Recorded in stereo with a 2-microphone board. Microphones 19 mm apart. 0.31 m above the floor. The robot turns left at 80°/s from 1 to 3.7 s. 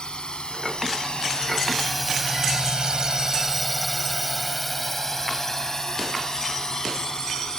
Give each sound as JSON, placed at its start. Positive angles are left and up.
{"t": 0.0, "sound": "a drone", "side_deg": 60}